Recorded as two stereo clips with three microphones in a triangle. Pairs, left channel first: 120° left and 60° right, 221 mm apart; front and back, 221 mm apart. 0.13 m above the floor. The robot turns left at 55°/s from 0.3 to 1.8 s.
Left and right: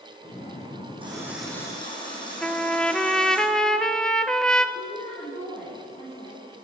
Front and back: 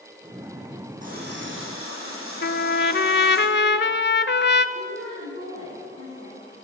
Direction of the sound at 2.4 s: 35° left.